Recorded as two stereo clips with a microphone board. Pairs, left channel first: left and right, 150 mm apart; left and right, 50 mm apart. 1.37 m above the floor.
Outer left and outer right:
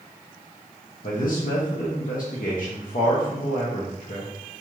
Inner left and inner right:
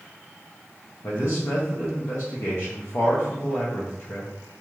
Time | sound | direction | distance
1.0 | a man speaking | 65° left (ahead or behind) | 0.6 m